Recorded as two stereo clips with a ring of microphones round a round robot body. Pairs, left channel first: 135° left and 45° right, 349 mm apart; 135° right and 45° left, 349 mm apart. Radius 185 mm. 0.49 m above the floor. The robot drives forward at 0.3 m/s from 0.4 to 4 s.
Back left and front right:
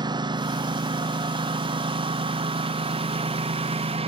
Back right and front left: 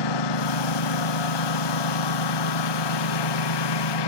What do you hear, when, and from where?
0.0 s a lawn mower: 125° right; by 4.1 s 120° right